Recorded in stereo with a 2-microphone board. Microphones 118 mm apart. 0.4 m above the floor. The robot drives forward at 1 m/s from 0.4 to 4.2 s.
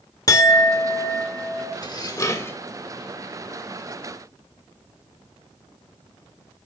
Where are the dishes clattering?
35° left (ahead or behind), 0.7 m; by 2.6 s 20° left (ahead or behind), 1.2 m.